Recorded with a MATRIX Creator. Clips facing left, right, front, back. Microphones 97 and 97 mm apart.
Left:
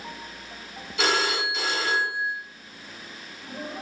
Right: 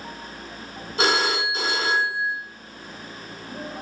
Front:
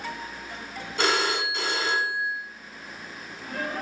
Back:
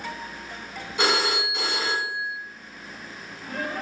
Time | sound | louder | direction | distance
1.0 | a phone ringing | right 3 dB, back 1 dB | 110° right | 1.0 m